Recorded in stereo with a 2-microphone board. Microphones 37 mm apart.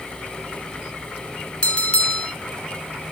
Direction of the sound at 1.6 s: 30° left (ahead or behind).